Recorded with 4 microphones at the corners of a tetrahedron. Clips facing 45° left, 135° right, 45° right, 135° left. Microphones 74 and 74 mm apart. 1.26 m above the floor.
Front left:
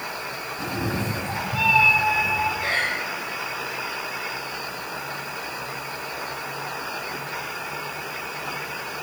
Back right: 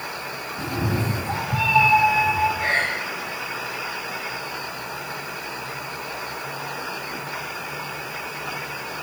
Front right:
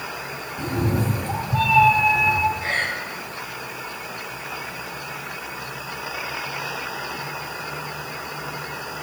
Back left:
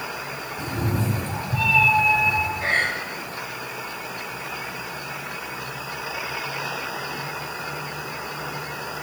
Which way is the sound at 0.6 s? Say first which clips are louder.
Back right 2 dB, front right 3 dB; 80° right.